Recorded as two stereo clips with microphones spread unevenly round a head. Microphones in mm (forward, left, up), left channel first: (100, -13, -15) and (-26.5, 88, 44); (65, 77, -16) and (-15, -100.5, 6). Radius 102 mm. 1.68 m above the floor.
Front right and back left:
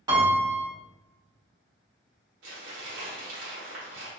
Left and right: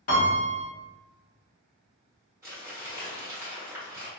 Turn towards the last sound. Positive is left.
turn(degrees=170)